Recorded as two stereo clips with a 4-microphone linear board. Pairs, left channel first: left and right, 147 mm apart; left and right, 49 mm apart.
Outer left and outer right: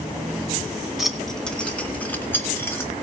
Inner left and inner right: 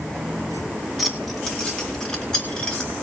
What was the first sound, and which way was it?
Keys jangling, centre (ahead or behind).